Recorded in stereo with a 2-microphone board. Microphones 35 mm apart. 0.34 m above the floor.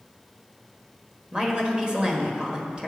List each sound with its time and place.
1.3 s a woman speaking: 20° right (ahead or behind), 1.3 m